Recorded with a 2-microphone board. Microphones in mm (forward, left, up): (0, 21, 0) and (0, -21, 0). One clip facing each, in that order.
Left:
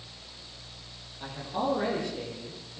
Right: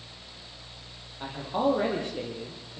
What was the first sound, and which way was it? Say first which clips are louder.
A man speaking: right 4 dB; 30° right (ahead or behind).